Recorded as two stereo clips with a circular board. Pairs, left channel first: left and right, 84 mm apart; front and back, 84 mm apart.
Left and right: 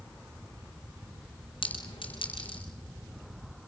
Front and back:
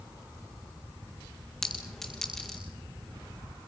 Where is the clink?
85° left, 5.5 m.